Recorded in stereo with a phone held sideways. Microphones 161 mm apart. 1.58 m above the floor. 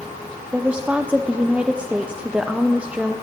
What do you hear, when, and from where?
0.5 s a woman speaking: 5° right (ahead or behind), 0.6 m